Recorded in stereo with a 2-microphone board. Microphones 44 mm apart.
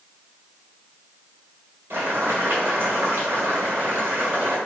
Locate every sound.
1.9 s boiling: 60° right (ahead or behind), 1.7 m